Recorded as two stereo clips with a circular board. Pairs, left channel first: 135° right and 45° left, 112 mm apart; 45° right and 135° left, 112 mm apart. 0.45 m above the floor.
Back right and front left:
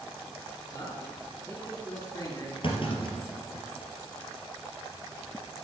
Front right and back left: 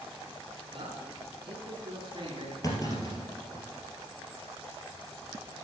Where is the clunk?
100° right, 2.5 m.